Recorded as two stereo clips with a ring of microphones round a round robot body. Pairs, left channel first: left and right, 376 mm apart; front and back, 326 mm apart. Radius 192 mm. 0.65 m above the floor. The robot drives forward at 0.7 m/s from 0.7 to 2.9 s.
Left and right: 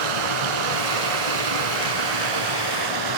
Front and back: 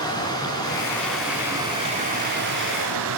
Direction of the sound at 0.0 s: 80° right.